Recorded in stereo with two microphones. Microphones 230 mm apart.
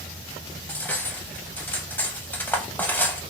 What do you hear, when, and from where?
0.7 s cutlery clinking: 5° left (ahead or behind), 0.5 m